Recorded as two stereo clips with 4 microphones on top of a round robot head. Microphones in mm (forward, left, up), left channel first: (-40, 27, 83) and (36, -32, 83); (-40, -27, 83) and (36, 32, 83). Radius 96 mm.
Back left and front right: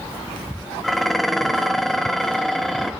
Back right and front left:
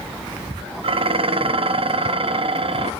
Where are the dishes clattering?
55° left, 0.7 m.